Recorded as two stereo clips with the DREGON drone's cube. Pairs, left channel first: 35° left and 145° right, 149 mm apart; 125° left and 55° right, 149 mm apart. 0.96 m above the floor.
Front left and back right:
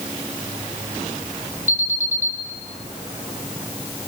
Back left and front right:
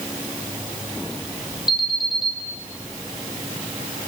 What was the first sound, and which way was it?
An alarm, 175° right.